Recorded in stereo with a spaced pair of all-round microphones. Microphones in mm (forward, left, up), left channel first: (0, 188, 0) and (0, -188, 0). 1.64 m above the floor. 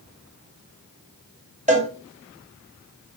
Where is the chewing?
I don't hear chewing.